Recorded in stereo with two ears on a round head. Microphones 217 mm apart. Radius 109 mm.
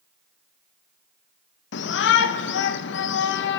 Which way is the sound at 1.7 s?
45° left (ahead or behind).